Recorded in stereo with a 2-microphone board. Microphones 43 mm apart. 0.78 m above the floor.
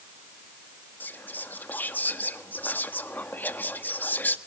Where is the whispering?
45° left (ahead or behind), 1.3 m.